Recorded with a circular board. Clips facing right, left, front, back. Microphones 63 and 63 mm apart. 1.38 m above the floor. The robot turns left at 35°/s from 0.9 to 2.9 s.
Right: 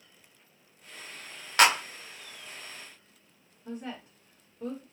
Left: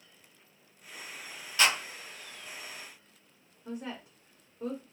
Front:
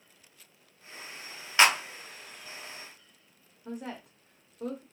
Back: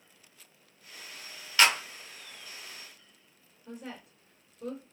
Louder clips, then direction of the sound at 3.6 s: Even, front 4 dB; 20° left.